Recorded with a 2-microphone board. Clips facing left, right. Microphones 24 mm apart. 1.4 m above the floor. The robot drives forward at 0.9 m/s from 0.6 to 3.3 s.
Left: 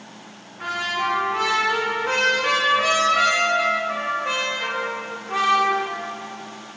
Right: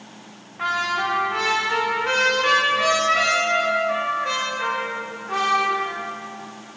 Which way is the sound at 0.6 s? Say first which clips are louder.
Right 2 dB; 75° right (ahead or behind).